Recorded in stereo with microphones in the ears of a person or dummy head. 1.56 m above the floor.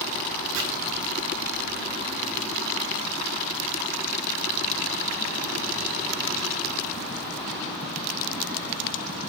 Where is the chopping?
70° right (ahead or behind), 3 m.